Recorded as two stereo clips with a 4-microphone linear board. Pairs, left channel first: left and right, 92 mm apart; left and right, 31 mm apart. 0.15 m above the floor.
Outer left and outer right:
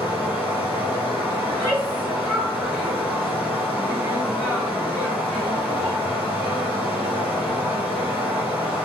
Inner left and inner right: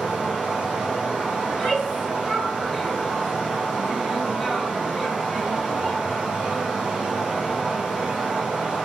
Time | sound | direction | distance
0.0 | running water | 20° right (ahead or behind) | 1.4 m
1.4 | a shout | centre (ahead or behind) | 1.6 m